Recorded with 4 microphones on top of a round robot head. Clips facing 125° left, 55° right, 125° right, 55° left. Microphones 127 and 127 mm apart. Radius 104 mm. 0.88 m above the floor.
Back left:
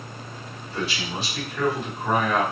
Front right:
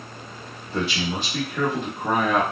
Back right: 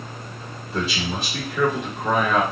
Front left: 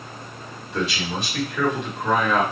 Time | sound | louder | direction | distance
0.7 | a man speaking | front right 4 dB, even | 75° right | 1.3 m